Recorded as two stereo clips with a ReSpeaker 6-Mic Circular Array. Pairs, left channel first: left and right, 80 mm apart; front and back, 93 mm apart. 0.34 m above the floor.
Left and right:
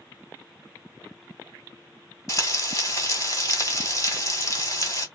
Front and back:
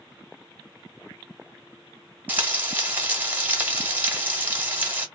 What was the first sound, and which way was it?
Frying, 115° left.